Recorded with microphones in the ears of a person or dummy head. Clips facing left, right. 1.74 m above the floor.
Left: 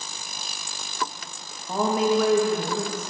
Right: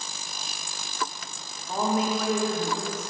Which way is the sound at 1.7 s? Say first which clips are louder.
Left 4 dB; 70° left (ahead or behind).